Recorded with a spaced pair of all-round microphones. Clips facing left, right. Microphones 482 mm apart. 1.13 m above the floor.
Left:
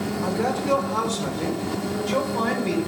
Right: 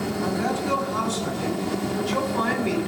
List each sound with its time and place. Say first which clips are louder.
0.2 s a man speaking: left 2 dB; 85° left, 3.5 m; by 2.8 s 50° left (ahead or behind), 5 m